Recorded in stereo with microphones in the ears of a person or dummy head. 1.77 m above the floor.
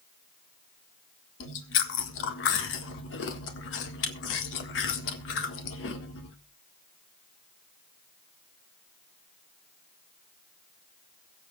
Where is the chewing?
65° left (ahead or behind), 1.7 m.